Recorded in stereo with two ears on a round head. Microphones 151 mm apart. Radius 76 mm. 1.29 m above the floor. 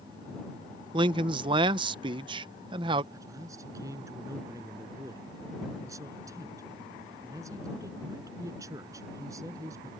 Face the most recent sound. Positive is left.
turn(degrees=-20)  # may be behind; listen again after turning